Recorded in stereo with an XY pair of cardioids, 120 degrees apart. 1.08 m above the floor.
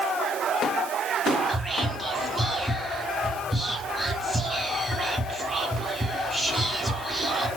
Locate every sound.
1.5 s whispering: 10° right, 1.1 m